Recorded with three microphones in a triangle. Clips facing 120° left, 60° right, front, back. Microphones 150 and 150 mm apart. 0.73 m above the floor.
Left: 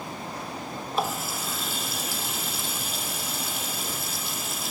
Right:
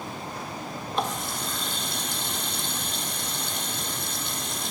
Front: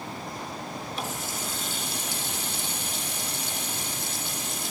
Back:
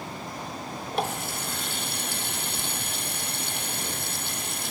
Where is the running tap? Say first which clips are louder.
Left 1 dB, back 8 dB; 155° right, 1.5 m.